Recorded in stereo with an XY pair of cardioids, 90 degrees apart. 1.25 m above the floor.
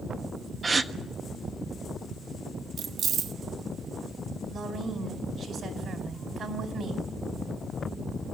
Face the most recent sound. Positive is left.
turn(degrees=-65)